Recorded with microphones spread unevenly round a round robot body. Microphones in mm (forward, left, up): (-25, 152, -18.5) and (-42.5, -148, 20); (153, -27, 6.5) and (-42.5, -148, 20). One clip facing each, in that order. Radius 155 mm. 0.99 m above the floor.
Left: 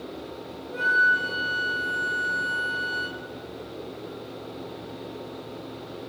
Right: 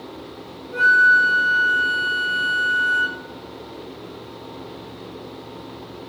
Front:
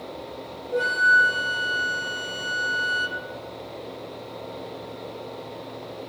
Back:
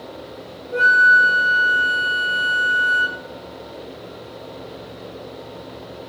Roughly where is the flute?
Right.